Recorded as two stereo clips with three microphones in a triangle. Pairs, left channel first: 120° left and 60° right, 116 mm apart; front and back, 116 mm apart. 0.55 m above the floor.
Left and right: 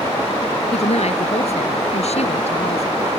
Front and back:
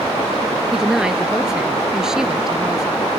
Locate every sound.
0.7 s a woman speaking: 95° left